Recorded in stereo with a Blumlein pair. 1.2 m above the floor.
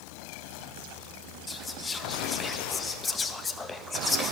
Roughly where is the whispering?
Ahead.